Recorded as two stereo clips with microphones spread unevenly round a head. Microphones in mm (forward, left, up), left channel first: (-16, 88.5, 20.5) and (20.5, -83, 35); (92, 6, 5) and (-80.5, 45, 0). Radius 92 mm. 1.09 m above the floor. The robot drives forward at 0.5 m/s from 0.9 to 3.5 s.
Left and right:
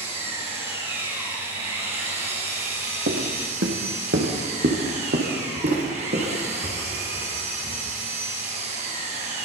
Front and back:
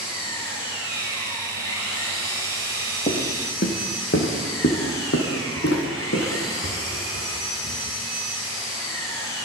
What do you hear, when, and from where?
0.0 s an engine running: 25° right, 7.5 m
3.1 s footsteps: 60° right, 3 m; by 7.8 s 25° right, 7 m